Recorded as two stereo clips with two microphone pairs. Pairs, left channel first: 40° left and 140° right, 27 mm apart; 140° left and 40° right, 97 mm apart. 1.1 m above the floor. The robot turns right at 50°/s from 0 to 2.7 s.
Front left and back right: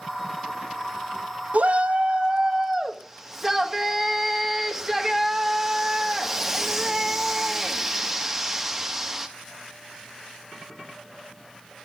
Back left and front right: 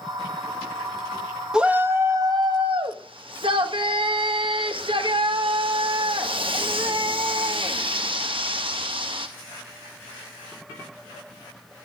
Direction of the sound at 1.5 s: 120° right.